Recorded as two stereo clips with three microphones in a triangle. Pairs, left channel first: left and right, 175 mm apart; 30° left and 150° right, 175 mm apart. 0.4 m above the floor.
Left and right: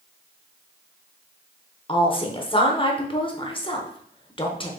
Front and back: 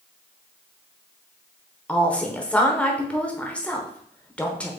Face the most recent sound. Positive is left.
turn(degrees=105)